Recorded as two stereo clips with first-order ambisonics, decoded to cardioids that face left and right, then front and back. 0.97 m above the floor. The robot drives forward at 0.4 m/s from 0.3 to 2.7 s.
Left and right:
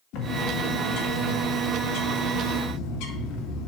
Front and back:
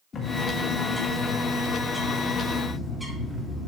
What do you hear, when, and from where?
0.1 s a bird: 65° left, 2 m; by 3.7 s 95° left, 1.9 m